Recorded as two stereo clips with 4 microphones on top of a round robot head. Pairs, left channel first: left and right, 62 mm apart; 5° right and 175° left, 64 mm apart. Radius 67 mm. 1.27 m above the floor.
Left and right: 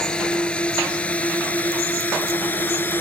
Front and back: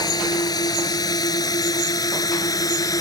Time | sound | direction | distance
0.0 | a drone | 15° left | ?